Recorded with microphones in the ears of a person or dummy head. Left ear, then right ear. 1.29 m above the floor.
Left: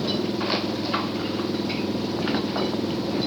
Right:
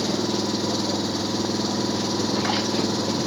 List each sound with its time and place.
0.0 s an engine running: 65° right (ahead or behind)